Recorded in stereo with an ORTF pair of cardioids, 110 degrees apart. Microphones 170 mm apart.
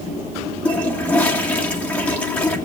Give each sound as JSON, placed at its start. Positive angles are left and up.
{"t": 0.7, "sound": "a toilet flushing", "azimuth_deg": 10, "distance_m": 1.8}